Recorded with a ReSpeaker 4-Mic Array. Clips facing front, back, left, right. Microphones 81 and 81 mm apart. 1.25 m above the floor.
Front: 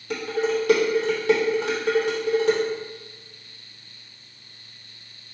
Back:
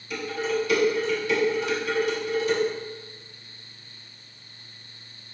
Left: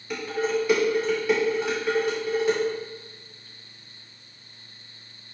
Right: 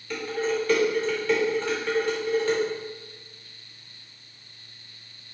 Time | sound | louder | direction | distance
0.1 | dishes clattering | front 3 dB, left 1 dB | 10° left | 2.5 m